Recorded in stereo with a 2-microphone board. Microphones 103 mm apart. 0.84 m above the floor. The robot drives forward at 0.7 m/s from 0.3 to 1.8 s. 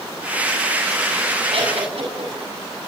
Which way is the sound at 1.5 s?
65° right (ahead or behind).